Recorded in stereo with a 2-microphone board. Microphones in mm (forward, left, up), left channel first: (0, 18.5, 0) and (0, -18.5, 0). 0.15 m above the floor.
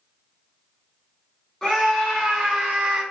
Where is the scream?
10° left (ahead or behind), 1.4 m; by 3.0 s 15° right (ahead or behind), 1.7 m.